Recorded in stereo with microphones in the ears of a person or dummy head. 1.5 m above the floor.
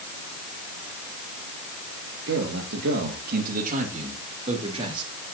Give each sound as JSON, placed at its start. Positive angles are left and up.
{"t": 2.3, "sound": "a man speaking", "side_deg": -80, "distance_m": 2.5}